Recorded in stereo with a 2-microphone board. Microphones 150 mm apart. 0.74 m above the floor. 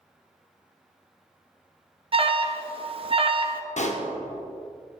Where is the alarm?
40° right (ahead or behind), 0.5 m.